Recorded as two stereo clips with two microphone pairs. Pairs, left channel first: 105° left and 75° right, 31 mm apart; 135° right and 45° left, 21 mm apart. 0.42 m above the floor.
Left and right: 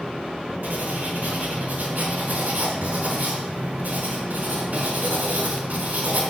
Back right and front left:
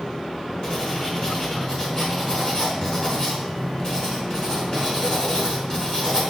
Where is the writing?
85° right, 5 m.